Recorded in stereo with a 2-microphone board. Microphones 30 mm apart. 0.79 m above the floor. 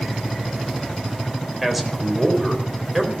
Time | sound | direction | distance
1.6 | a man speaking | centre (ahead or behind) | 3.5 m